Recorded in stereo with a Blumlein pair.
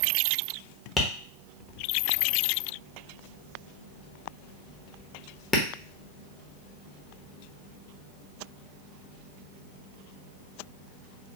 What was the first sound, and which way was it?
Tapping, 15° left.